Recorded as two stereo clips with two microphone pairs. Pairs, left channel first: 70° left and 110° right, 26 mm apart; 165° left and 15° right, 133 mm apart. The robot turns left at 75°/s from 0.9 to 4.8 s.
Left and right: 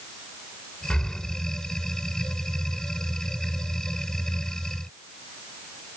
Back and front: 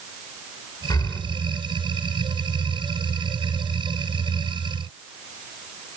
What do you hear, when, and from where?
0.9 s breathing: 110° left, 2 m; by 1.2 s 90° left, 2 m